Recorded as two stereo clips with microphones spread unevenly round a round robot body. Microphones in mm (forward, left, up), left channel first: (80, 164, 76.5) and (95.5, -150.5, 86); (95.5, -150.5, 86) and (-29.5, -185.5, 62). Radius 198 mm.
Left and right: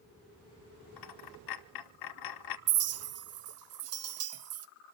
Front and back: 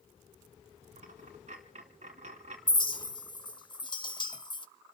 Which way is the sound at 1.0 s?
130° left.